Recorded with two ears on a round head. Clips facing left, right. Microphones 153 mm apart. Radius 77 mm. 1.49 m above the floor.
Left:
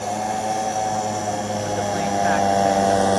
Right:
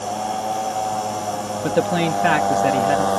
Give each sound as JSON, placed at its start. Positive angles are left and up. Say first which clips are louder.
{"t": 0.0, "sound": "a motorcycle", "louder": "even", "side_deg": 5}
{"t": 1.6, "sound": "a man speaking", "louder": "right 7 dB", "side_deg": -70}